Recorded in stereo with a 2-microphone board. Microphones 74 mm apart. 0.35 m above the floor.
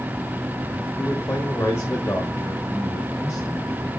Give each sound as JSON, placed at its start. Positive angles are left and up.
{"t": 1.0, "sound": "a man speaking", "side_deg": 25, "distance_m": 1.4}